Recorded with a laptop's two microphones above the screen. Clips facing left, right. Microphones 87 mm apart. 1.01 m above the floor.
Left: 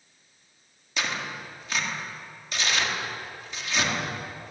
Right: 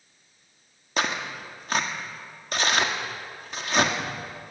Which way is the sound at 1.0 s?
50° right (ahead or behind).